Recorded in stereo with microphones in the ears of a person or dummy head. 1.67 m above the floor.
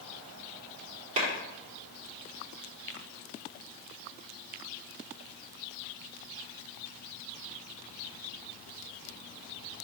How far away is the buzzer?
I don't hear a buzzer.